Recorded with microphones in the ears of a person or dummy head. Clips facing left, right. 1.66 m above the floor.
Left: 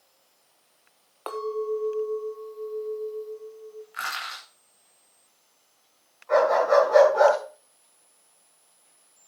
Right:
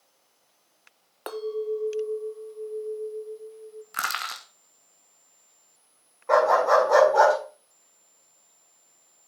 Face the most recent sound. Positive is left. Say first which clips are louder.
# left 1 dB
turn(degrees=-65)  # may be behind; listen again after turning